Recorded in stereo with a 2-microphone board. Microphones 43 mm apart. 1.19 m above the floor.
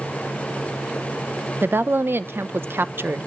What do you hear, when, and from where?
1.6 s a woman speaking: 60° right (ahead or behind), 0.8 m